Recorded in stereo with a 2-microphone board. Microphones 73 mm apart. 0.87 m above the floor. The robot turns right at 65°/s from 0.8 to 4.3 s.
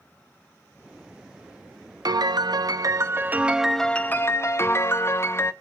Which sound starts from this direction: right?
A piano, at 2.0 s.